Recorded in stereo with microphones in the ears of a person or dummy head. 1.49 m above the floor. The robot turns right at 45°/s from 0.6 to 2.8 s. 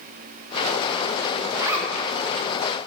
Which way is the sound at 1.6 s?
25° right (ahead or behind).